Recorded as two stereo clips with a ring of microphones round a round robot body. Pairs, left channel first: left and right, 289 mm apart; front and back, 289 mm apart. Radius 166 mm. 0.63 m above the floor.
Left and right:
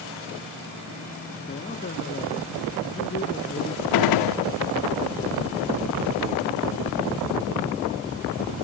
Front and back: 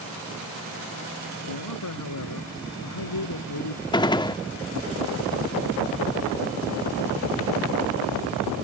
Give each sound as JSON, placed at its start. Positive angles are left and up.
{"t": 1.5, "sound": "a man speaking", "azimuth_deg": 25}
{"t": 3.9, "sound": "a gunshot", "azimuth_deg": 75}